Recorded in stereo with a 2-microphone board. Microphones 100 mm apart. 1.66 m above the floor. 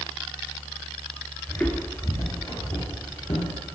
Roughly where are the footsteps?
Centre.